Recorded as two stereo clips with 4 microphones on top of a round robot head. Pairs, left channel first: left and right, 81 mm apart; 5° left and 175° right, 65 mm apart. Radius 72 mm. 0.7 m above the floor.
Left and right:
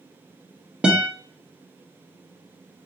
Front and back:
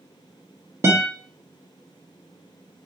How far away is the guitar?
About 0.9 m.